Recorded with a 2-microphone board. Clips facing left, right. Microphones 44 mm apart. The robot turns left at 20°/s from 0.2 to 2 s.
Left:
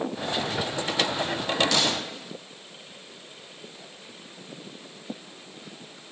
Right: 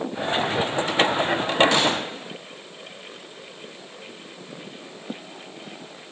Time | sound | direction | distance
1.7 | a gunshot | 30° right (ahead or behind) | 0.7 m